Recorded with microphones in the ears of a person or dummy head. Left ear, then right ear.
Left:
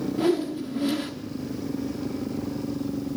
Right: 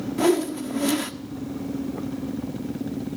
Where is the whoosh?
30° right (ahead or behind), 1.2 m.